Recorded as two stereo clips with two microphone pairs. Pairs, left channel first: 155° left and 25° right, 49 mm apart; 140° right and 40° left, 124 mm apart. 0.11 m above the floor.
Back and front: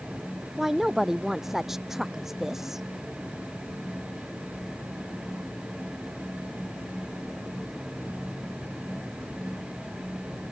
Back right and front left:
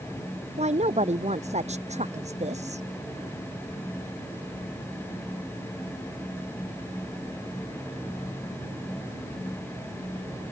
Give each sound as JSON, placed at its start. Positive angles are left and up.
{"t": 0.6, "sound": "a woman speaking", "azimuth_deg": 60}